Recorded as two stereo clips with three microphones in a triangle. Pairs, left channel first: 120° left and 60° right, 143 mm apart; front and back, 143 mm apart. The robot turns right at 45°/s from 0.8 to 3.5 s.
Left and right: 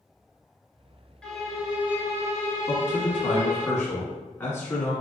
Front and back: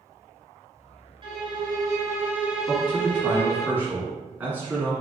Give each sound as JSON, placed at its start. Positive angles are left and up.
{"t": 1.2, "sound": "a violin", "azimuth_deg": -160, "distance_m": 1.0}
{"t": 2.7, "sound": "a man speaking", "azimuth_deg": 100, "distance_m": 1.0}